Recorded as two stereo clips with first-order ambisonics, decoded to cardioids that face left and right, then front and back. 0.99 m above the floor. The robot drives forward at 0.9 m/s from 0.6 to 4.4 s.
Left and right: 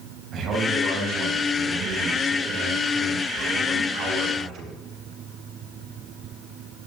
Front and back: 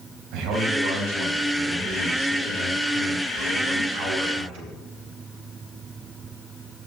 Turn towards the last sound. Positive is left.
turn(degrees=-160)